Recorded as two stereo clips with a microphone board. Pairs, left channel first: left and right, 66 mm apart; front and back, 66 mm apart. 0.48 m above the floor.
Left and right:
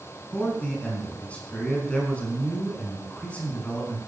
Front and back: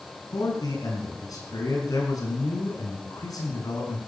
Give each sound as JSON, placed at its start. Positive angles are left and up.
{"t": 0.3, "sound": "a man speaking", "azimuth_deg": 20, "distance_m": 5.5}